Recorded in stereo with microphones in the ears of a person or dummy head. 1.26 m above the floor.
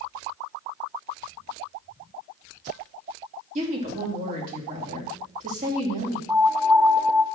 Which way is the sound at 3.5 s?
45° right (ahead or behind).